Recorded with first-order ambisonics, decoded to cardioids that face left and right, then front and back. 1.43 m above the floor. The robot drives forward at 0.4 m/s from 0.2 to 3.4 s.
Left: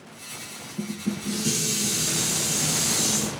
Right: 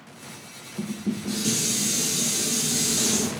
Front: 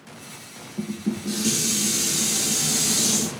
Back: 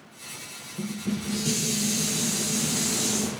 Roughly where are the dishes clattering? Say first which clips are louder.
Right 1 dB, front 3 dB; ahead.